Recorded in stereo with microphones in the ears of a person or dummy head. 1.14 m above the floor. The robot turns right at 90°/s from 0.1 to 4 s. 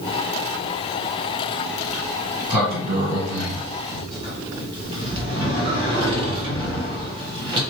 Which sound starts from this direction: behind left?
A sliding door, at 1.8 s.